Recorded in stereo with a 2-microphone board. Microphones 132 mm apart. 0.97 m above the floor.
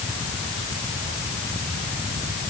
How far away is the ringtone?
I don't hear a ringtone.